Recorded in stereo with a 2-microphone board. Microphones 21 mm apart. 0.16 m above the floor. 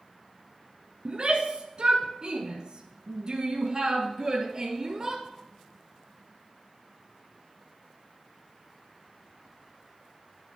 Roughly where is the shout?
Right.